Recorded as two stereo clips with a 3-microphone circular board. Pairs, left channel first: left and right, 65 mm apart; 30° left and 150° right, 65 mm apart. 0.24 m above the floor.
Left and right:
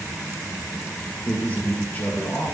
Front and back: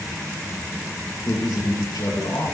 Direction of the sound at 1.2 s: 25° left.